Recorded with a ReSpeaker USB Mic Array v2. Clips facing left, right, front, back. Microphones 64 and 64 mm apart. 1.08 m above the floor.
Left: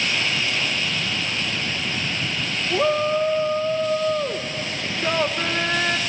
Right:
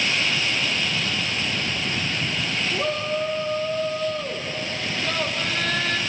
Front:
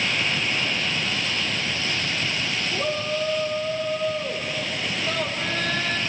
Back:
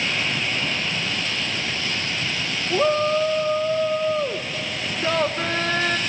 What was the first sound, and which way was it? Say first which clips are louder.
A shout: left 8 dB, back 10 dB; 145° left.